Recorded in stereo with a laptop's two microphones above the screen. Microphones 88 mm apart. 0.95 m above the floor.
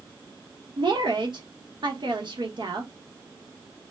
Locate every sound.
0.8 s a woman speaking: 65° right (ahead or behind), 0.9 m